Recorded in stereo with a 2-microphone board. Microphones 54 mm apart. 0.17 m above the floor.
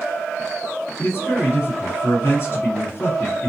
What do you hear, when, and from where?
1.0 s a man speaking: 45° left (ahead or behind), 2 m